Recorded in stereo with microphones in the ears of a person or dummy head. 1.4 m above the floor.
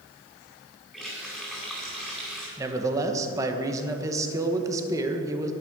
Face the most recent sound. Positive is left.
turn(degrees=-20)  # may be behind; listen again after turning